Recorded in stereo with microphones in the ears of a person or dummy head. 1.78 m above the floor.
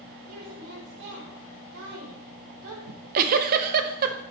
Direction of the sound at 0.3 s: 85° right.